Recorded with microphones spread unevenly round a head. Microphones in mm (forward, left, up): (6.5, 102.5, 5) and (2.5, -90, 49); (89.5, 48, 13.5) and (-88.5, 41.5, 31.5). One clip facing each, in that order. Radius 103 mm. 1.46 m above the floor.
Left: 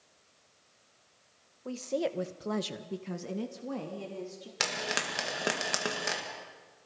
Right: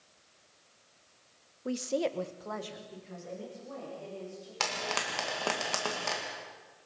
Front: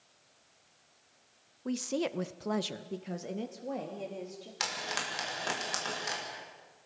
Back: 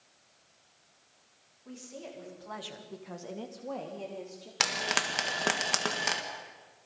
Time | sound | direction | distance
1.6 | a woman speaking | 25° right | 1.2 m
4.6 | frying | 160° left | 2 m